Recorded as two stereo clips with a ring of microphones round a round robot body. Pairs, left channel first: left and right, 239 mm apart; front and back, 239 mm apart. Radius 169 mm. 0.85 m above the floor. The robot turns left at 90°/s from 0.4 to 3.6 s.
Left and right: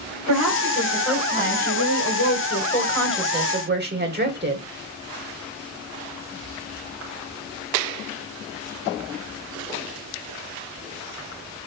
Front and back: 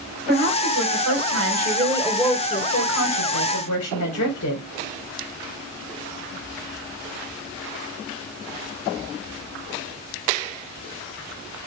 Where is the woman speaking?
115° right, 3.5 m; by 4.6 s 45° right, 3.5 m.